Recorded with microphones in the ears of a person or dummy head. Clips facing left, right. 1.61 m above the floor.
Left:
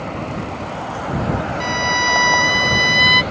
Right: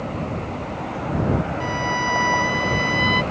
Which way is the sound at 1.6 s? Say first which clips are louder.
Left 2 dB; 50° left (ahead or behind).